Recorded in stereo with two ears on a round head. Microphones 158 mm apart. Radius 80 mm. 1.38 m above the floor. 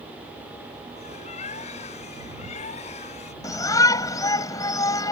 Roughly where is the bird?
Left.